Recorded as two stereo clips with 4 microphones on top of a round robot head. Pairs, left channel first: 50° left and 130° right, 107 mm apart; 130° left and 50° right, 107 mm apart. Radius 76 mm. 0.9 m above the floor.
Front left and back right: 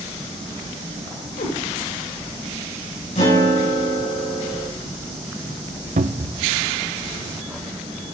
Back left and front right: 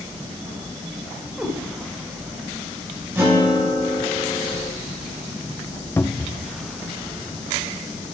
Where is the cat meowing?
35° left, 2.5 m.